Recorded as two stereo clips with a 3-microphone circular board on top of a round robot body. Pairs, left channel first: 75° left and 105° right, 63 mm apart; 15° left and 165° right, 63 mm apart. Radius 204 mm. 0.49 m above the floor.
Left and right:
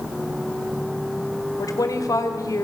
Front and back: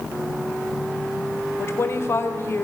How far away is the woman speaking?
About 3 m.